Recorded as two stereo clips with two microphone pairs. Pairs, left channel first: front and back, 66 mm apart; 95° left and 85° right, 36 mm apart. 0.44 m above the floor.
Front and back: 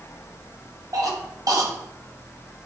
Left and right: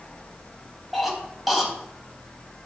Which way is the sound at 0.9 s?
175° right.